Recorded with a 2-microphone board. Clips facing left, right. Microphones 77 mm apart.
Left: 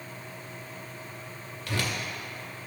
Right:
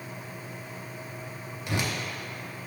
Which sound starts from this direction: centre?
A whoosh, at 1.7 s.